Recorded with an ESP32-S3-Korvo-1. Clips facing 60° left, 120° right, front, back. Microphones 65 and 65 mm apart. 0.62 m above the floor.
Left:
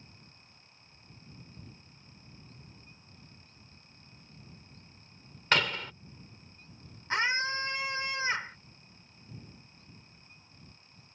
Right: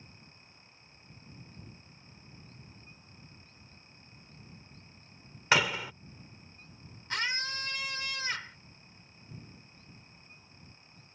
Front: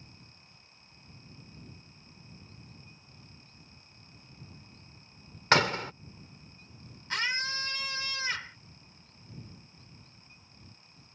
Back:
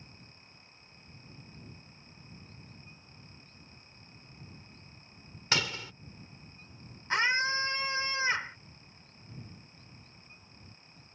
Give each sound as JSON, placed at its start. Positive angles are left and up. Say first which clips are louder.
{"t": 5.5, "sound": "a door slam", "louder": "right 1 dB, front 8 dB", "azimuth_deg": -40}
{"t": 7.1, "sound": "a scream", "louder": "left 5 dB, back 5 dB", "azimuth_deg": 120}